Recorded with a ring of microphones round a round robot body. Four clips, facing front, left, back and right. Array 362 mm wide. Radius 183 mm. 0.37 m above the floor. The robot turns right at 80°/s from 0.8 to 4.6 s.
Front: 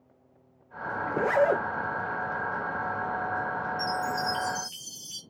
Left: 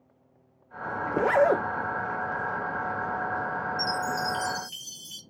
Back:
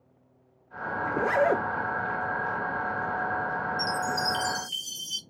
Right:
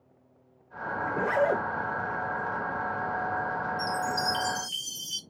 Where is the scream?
I don't hear a scream.